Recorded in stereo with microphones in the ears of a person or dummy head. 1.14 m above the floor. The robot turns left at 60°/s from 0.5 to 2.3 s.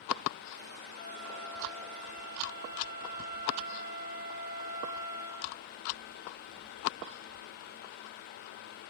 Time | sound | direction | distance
1.0 | a flute | 60° left | 2 m